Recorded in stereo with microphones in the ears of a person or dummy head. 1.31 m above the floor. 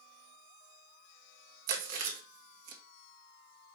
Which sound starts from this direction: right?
Chewing, at 1.7 s.